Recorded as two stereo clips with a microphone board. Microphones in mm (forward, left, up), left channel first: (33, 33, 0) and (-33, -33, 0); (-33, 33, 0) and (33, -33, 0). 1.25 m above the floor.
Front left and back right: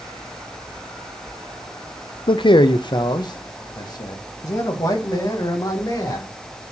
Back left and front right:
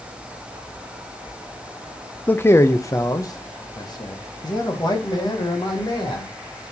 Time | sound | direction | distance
2.3 | a man speaking | 65° left | 0.6 m